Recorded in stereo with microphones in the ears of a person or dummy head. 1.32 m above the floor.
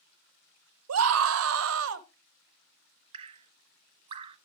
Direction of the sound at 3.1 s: 25° right (ahead or behind).